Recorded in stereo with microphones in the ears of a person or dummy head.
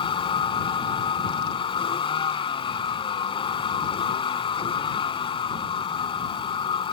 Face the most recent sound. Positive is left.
turn(degrees=30)  # may be behind; listen again after turning